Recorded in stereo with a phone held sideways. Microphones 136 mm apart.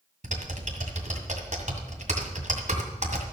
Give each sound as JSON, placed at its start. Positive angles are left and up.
{"t": 0.2, "sound": "typing on a keyboard", "side_deg": -65, "distance_m": 2.0}